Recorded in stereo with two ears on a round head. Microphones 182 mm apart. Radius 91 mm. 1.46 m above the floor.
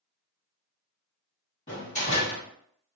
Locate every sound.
1.7 s a door slam: 35° left (ahead or behind), 1.4 m